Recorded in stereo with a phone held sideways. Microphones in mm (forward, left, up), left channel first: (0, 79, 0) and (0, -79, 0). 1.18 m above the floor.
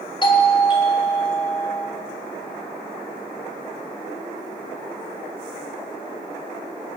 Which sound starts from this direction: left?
A doorbell, at 0.2 s.